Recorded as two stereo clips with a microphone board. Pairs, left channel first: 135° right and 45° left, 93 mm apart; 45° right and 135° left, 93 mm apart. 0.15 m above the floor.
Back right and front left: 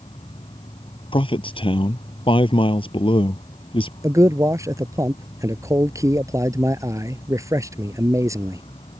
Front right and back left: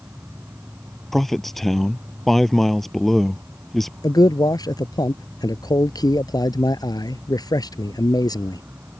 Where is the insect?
155° right.